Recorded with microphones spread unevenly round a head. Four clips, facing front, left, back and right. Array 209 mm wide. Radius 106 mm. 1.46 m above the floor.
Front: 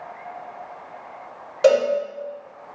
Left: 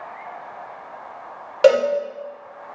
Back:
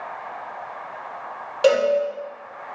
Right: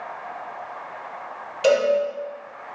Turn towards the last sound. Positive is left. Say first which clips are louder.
# left 4 dB, front 1 dB
turn(degrees=115)